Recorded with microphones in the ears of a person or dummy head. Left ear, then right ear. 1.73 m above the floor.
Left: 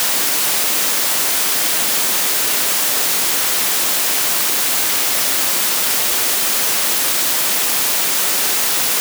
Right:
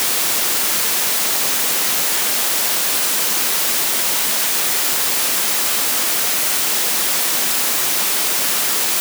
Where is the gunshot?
No gunshot in this recording.